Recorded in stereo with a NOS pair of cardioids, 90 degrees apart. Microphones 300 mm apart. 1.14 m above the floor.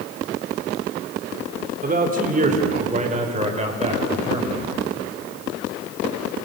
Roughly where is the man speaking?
Ahead right.